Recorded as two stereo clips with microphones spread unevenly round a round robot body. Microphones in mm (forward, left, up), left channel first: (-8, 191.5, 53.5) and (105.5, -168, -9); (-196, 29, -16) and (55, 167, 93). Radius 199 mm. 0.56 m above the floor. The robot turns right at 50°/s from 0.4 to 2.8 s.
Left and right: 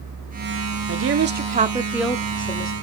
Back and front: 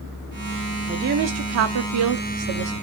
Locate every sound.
0.9 s a woman speaking: 50° right, 0.9 m; by 2.7 s 40° left, 0.9 m